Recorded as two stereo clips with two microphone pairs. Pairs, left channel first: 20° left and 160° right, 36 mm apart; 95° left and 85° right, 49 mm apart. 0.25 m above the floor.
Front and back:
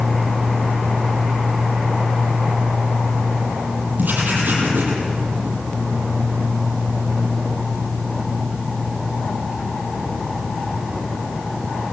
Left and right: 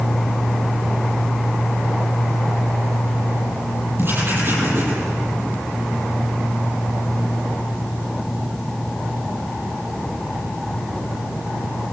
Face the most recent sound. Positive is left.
turn(degrees=-120)